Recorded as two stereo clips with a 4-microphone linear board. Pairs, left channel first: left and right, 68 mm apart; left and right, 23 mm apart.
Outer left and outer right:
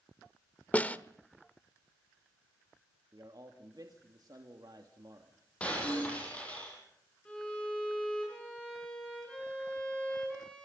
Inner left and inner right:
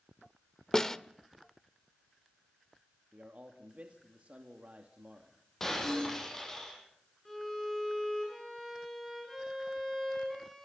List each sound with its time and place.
0.7 s a snare drum: 20° left (ahead or behind), 1.1 m
3.1 s a man speaking: 65° right (ahead or behind), 2.5 m
5.6 s breaking glass: 20° left (ahead or behind), 10 m
7.2 s a violin: 15° left (ahead or behind), 9.5 m